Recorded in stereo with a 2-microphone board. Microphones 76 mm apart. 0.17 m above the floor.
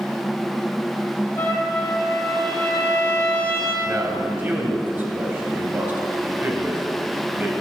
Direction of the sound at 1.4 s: 30° left (ahead or behind).